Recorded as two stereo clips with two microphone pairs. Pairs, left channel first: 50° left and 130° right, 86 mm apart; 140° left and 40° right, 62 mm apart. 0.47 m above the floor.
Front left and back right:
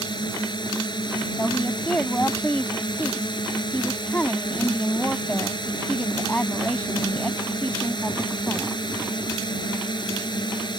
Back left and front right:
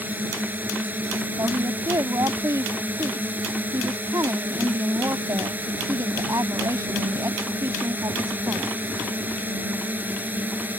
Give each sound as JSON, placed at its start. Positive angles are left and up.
{"t": 0.0, "sound": "a drone", "azimuth_deg": 20}
{"t": 1.4, "sound": "a woman speaking", "azimuth_deg": -20}